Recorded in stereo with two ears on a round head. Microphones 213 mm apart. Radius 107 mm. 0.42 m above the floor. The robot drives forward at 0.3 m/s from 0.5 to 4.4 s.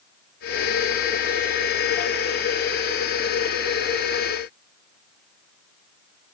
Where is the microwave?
I don't hear a microwave.